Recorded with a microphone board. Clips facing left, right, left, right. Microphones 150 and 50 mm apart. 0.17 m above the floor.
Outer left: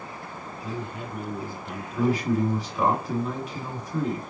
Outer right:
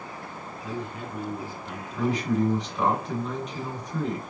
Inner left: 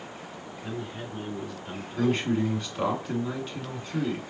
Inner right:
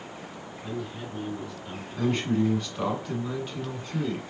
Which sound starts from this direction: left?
A man speaking, at 0.6 s.